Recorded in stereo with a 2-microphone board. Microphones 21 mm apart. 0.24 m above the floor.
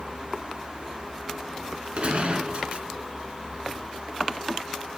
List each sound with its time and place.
2.0 s a gunshot: 50° right (ahead or behind), 1.7 m